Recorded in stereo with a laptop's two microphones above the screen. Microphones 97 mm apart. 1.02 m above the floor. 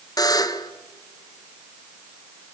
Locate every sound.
0.2 s a buzzer: 40° left (ahead or behind), 1.2 m